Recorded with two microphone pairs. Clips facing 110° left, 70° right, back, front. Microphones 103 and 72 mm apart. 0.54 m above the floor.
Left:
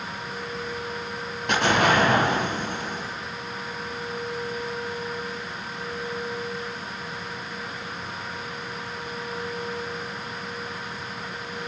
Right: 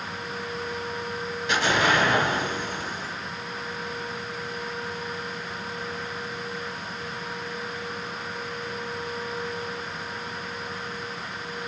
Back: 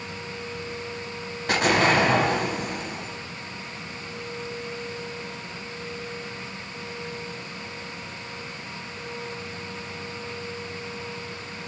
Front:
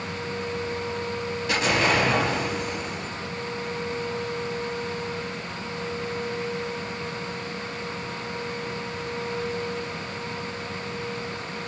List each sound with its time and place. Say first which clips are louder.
1.5 s an explosion: left 2 dB, back 3 dB; 145° left, 0.7 m